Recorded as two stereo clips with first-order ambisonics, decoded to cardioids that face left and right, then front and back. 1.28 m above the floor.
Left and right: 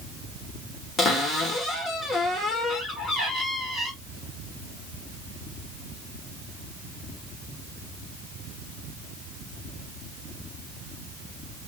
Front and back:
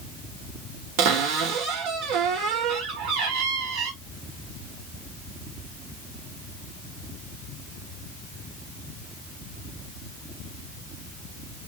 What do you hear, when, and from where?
1.0 s a cupboard door: 160° left, 1.1 m